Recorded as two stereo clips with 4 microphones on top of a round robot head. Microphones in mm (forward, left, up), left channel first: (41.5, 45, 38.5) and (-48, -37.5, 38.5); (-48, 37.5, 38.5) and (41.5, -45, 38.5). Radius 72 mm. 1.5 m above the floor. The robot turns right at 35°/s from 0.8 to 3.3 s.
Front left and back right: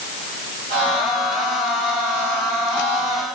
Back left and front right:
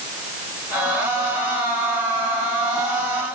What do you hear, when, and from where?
Only background noise.